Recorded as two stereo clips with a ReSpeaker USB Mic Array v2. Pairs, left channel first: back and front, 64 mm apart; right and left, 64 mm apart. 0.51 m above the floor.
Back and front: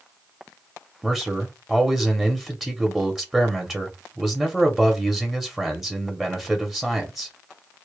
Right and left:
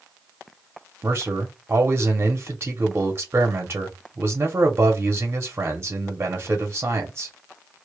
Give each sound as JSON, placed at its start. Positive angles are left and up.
{"t": 1.0, "sound": "a man speaking", "azimuth_deg": 75, "distance_m": 0.8}